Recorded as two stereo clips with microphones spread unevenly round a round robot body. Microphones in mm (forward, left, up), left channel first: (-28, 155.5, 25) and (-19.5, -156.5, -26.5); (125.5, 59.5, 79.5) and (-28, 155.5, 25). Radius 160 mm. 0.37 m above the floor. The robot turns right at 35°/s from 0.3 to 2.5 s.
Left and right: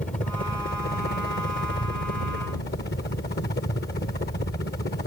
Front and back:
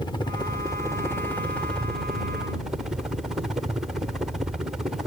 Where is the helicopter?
40° left; by 5.1 s 115° left.